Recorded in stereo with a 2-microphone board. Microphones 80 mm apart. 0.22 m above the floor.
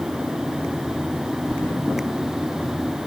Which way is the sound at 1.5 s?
30° left (ahead or behind).